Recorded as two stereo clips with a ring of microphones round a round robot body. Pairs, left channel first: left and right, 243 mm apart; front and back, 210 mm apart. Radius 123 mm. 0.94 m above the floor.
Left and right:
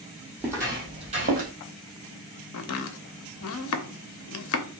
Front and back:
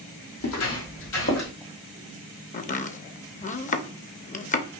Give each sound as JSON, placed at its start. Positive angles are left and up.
{"t": 0.4, "sound": "footsteps", "azimuth_deg": -10, "distance_m": 2.0}
{"t": 2.5, "sound": "chopping", "azimuth_deg": 55, "distance_m": 0.7}